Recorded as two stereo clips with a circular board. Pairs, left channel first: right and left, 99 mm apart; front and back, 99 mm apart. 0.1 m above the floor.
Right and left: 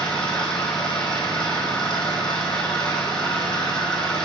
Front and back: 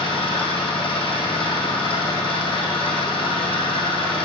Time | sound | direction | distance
0.0 | an engine running | 5° right | 1.7 m